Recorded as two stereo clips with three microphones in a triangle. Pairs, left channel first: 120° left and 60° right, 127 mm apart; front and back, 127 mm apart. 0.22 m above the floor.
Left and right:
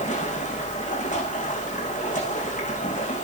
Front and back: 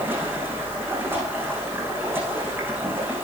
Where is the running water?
105° left, 9.5 m.